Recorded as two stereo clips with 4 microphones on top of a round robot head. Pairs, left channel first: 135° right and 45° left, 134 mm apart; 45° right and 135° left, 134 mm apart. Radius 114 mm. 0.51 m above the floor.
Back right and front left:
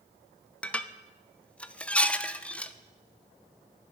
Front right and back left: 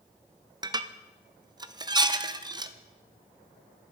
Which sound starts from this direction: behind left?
Dishes clattering, at 0.6 s.